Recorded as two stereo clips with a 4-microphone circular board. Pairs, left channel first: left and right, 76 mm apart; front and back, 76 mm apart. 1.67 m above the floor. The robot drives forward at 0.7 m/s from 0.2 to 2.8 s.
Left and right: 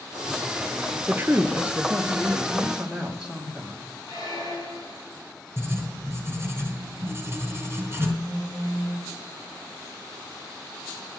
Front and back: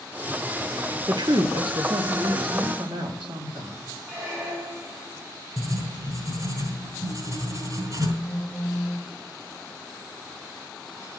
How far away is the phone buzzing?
About 3 m.